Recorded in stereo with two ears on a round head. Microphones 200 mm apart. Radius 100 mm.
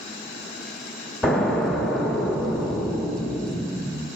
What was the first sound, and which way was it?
An explosion, centre (ahead or behind).